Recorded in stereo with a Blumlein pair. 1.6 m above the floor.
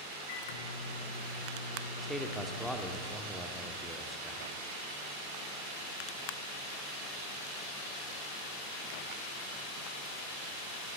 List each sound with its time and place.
0.3 s a microwave: 55° left, 1.4 m
2.0 s a man speaking: straight ahead, 1.1 m